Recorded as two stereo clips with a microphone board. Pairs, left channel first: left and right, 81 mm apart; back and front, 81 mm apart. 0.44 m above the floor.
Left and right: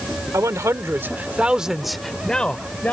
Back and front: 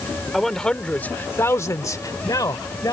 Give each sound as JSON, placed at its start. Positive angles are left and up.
{"t": 0.3, "sound": "a man speaking", "azimuth_deg": -90}